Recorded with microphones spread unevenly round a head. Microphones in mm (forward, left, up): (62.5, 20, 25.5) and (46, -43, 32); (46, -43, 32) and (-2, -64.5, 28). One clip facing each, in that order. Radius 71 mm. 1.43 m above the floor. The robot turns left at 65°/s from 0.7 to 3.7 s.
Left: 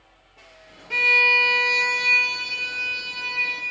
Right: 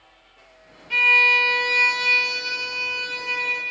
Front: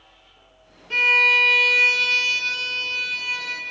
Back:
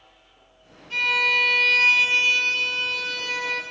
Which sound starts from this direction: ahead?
A violin, at 0.9 s.